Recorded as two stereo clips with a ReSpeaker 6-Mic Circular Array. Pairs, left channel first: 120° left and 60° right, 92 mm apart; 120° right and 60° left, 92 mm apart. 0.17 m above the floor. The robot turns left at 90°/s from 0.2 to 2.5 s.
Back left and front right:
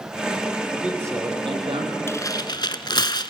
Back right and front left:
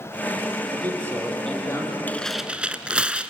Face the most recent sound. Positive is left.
turn(degrees=135)